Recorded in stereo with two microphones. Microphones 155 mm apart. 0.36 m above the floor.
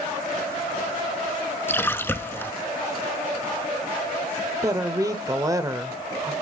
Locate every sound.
1.7 s a splash: 15° left (ahead or behind), 0.9 m
4.6 s a woman speaking: 20° right (ahead or behind), 0.9 m